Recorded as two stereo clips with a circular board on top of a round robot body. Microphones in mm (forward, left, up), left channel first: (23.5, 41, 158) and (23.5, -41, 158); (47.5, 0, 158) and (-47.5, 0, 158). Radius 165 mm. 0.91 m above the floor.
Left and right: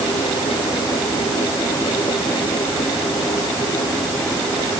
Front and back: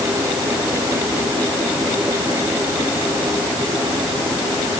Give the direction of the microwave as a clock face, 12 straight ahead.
I don't hear a microwave.